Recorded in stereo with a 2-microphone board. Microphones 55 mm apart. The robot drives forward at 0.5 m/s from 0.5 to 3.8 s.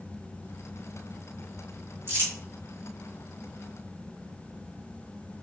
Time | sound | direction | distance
2.1 | crumpling | 45° right (ahead or behind) | 1.8 m